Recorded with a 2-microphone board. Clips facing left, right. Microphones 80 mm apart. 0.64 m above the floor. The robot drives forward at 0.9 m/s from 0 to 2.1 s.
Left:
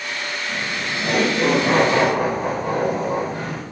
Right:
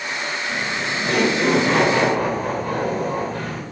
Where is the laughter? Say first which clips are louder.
Right 1 dB; 15° left (ahead or behind), 4 m; by 3.6 s 25° left (ahead or behind), 3 m.